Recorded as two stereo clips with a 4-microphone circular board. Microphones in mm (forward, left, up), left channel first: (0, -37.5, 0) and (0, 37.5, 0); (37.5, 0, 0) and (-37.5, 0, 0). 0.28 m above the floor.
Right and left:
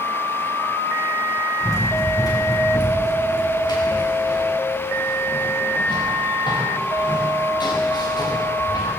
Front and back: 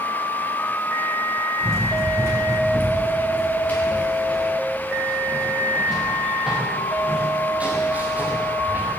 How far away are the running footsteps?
About 8.5 m.